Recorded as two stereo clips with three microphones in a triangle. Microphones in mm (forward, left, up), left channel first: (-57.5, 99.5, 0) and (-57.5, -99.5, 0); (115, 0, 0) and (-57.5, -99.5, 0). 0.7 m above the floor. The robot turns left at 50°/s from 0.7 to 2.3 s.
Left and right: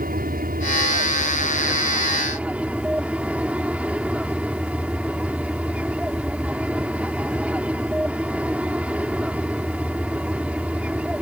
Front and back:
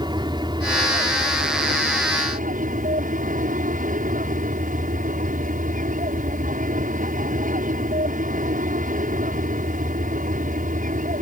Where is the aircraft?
90° right; by 11.2 s 170° right.